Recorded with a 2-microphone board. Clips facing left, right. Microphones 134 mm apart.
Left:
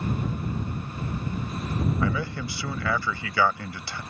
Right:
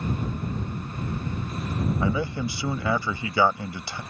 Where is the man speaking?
20° right (ahead or behind).